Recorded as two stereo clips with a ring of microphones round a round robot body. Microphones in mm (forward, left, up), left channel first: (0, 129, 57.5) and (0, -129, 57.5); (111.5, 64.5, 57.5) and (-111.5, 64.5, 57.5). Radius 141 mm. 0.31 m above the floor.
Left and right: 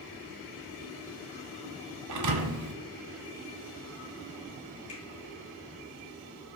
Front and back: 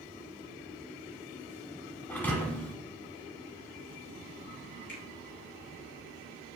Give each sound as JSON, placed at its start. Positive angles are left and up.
{"t": 2.1, "sound": "a thud", "azimuth_deg": -85, "distance_m": 0.8}
{"t": 4.9, "sound": "a finger snap", "azimuth_deg": 25, "distance_m": 3.0}